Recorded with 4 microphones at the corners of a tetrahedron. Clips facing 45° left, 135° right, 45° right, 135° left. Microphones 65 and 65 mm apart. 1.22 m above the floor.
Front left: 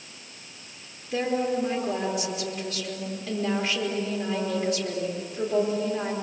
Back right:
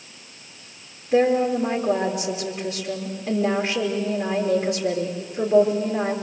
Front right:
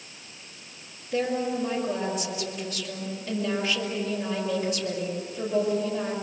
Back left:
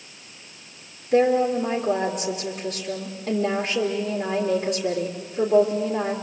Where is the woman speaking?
160° left, 3.5 m.